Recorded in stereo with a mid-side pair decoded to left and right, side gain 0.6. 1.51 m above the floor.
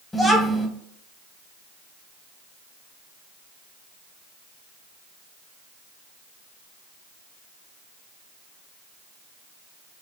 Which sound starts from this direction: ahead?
A child speaking, at 0.1 s.